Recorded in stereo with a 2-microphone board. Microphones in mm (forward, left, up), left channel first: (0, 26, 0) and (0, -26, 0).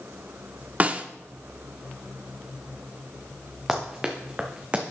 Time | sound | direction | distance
0.8 | a snare drum | 30° right (ahead or behind) | 0.6 m
3.7 | running footsteps | 5° right (ahead or behind) | 2 m